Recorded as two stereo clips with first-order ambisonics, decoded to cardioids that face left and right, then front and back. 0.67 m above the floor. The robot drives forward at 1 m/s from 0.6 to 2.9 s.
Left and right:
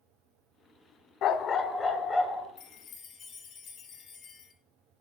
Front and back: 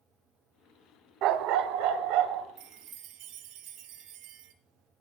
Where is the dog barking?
135° left, 0.5 m; by 2.5 s 165° left, 1.7 m.